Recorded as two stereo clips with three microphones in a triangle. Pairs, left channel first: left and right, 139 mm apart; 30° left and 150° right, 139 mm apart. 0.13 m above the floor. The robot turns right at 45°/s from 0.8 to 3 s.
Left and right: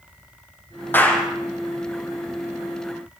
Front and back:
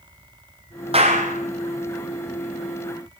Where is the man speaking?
No man speaking in this recording.